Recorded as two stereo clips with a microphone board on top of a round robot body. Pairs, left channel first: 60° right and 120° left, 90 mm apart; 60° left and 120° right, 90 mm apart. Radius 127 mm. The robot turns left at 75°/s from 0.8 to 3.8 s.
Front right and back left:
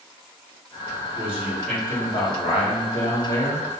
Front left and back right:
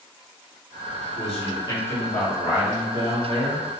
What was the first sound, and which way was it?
A man speaking, 65° left.